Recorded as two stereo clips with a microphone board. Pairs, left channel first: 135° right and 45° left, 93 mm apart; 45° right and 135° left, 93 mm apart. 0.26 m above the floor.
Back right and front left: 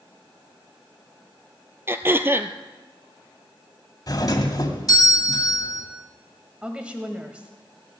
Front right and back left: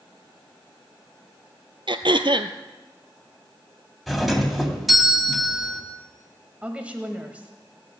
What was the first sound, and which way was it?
Throat clearing, 110° left.